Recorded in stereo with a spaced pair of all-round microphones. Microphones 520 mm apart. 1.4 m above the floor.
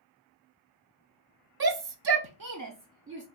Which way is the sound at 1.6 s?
45° right (ahead or behind).